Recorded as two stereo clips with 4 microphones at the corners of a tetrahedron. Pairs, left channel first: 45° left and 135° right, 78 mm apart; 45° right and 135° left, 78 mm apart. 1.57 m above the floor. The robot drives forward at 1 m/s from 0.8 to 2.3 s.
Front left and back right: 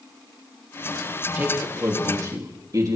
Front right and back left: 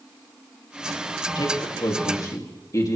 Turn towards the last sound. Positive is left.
turn(degrees=-90)